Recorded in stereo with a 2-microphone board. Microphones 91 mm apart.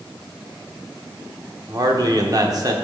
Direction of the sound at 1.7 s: 45° right (ahead or behind).